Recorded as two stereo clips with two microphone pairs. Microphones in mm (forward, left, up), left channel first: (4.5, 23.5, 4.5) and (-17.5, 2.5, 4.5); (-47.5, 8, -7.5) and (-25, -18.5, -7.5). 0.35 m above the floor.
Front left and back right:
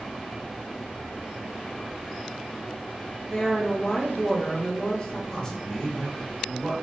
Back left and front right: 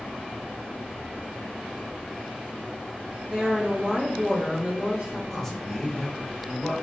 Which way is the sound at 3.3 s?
Straight ahead.